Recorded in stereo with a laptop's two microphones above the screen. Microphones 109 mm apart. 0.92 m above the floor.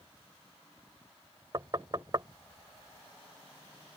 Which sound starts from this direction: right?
Knocking, at 1.5 s.